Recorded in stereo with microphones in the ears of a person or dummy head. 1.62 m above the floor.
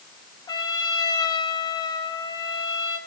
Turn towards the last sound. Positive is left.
turn(degrees=25)  # may be behind; listen again after turning